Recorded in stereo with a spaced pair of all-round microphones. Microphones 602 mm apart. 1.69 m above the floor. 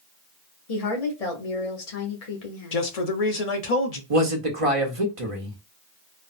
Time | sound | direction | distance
0.7 | a woman speaking | 75° left (ahead or behind) | 1.1 m
2.7 | a man speaking | 80° left | 0.7 m
4.1 | a man speaking | 60° right (ahead or behind) | 1.0 m